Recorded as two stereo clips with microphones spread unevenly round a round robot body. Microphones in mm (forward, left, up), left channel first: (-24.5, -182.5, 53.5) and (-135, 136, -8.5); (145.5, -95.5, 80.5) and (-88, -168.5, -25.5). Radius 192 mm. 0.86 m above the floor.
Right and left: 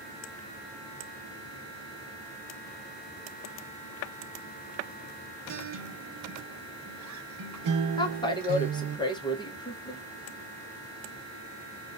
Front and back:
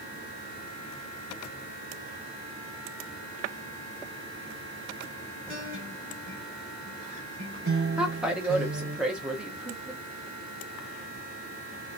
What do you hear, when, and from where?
5.5 s a guitar: 115° left, 0.5 m
8.0 s a woman speaking: 155° right, 0.7 m